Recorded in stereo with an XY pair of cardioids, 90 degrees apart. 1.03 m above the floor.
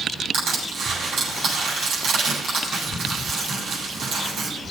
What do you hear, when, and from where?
0.3 s crushing: 70° right, 8 m